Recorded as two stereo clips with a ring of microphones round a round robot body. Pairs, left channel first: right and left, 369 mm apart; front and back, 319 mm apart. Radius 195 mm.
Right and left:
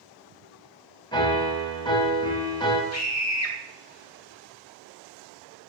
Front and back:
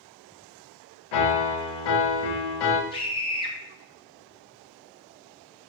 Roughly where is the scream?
Right.